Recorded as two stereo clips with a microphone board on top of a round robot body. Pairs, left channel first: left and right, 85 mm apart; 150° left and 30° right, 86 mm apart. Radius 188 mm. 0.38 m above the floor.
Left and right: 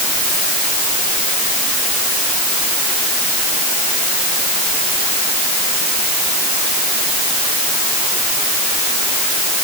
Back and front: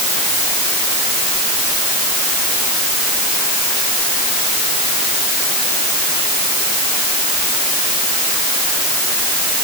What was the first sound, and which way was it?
Only background noise.